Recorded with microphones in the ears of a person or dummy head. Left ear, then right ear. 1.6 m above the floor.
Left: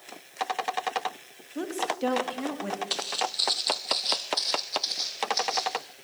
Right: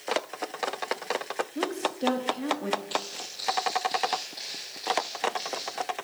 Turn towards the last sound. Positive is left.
turn(degrees=45)  # may be behind; listen again after turning